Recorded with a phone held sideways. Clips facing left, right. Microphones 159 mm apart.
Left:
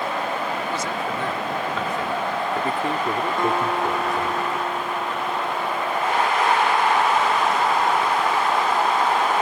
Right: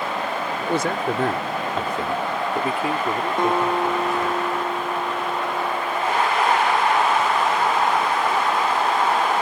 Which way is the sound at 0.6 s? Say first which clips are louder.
Right 4 dB; 65° right (ahead or behind).